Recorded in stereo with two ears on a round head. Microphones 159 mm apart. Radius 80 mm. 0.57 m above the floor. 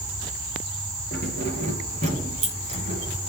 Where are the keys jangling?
45° right (ahead or behind), 6 m; by 3.3 s 40° right (ahead or behind), 5 m.